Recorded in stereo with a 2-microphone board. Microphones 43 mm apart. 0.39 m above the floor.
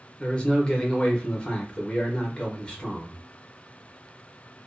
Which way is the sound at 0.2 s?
25° left (ahead or behind).